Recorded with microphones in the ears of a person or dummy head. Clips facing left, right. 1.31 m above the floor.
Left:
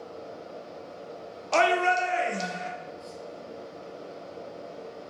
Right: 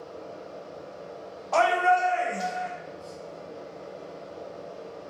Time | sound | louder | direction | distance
0.0 | a fan | even | 20° left (ahead or behind) | 1.6 m
1.5 | a shout | right 1 dB | 35° left (ahead or behind) | 0.6 m